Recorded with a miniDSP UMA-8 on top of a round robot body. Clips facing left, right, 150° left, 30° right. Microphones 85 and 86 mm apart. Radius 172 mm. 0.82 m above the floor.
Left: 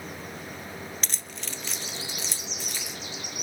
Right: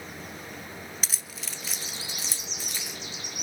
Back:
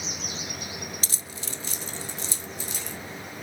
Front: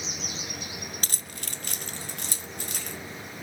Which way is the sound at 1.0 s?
5° right.